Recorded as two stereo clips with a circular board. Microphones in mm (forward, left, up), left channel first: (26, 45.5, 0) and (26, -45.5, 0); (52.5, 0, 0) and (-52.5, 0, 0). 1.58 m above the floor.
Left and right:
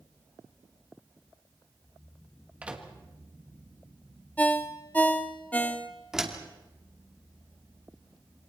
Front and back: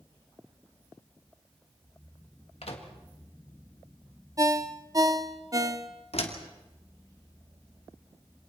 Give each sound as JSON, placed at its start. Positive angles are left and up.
{"t": 2.6, "sound": "a microwave", "azimuth_deg": -15, "distance_m": 2.0}
{"t": 4.4, "sound": "a ringtone", "azimuth_deg": 150, "distance_m": 1.2}
{"t": 6.1, "sound": "a door slam", "azimuth_deg": -5, "distance_m": 2.5}